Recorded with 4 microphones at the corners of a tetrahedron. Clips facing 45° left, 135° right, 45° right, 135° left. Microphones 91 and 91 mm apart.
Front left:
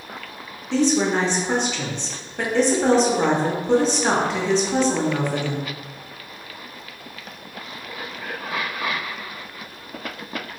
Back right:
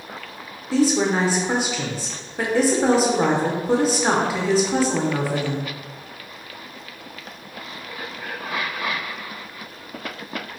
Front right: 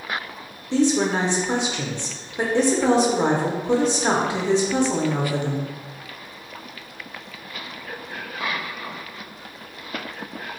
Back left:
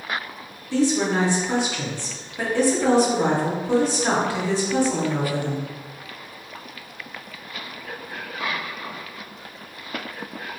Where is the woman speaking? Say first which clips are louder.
Even, front right 1 dB; 60° right, 0.6 m.